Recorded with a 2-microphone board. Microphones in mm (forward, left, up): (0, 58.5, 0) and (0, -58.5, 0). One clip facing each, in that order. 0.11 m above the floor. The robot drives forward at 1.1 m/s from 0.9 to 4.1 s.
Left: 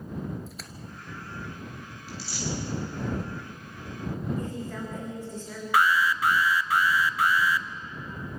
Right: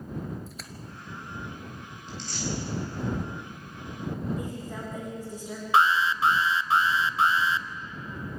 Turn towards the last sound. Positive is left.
turn(degrees=-25)  # may be behind; listen again after turning